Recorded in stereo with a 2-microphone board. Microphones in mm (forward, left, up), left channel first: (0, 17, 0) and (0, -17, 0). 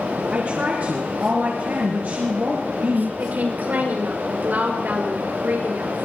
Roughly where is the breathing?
I don't hear breathing.